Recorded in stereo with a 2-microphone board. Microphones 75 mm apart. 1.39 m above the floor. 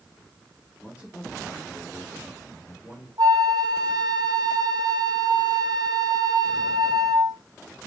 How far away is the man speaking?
About 3 m.